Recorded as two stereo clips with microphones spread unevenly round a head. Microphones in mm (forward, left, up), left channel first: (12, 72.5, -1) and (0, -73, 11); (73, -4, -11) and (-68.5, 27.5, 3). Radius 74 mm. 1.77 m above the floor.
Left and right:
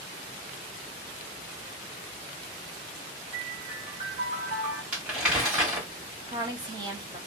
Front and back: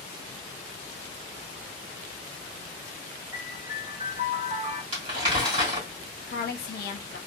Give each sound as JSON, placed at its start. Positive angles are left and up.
{"t": 3.3, "sound": "a piano", "azimuth_deg": -140, "distance_m": 1.5}
{"t": 4.9, "sound": "crumpling", "azimuth_deg": -170, "distance_m": 1.6}
{"t": 6.3, "sound": "a woman speaking", "azimuth_deg": -35, "distance_m": 0.8}